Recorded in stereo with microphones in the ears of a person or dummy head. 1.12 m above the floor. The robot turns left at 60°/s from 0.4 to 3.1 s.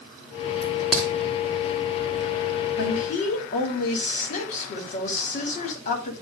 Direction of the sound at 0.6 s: 25° right (ahead or behind).